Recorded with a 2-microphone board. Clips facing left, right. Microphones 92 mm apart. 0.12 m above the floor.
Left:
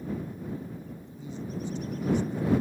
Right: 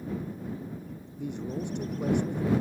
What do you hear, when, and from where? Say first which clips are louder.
1.2 s a man speaking: right 3 dB; 65° right (ahead or behind)